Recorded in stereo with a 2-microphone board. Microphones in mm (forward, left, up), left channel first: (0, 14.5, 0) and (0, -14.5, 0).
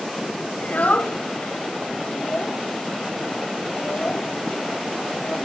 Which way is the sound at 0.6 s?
70° left (ahead or behind).